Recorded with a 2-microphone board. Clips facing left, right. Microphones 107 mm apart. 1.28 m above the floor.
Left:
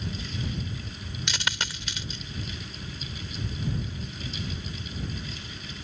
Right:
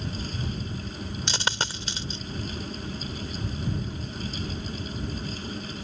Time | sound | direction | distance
1.3 | a dropped coin | 35° right (ahead or behind) | ?